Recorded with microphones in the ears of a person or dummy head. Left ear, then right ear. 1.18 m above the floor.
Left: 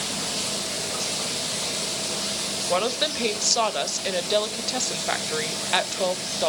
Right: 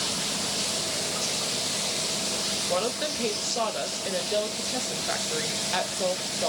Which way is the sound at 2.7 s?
30° left (ahead or behind).